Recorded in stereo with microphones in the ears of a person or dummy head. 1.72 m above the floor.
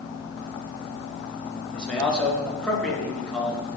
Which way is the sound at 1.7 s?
5° left (ahead or behind).